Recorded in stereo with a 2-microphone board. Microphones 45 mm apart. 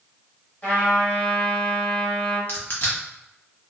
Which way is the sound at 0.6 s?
30° left (ahead or behind).